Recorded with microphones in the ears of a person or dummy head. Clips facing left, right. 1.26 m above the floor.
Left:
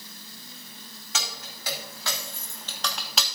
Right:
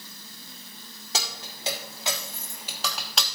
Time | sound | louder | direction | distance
1.1 | keys jangling | right 2 dB | 30° right (ahead or behind) | 2 m